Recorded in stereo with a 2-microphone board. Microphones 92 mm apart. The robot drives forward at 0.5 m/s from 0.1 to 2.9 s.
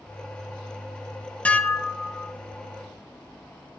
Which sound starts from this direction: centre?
Dishes clattering, at 1.4 s.